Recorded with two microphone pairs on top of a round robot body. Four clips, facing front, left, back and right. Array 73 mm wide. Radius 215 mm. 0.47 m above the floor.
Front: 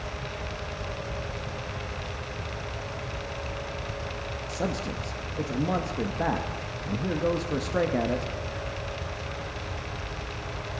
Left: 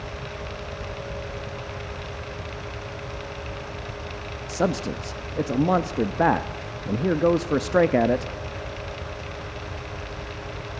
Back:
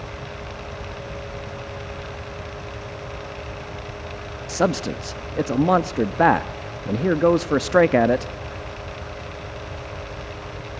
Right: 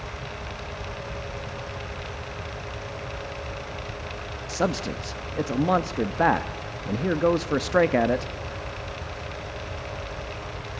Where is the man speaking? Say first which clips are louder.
Left 2 dB, back 10 dB; straight behind, 0.9 m.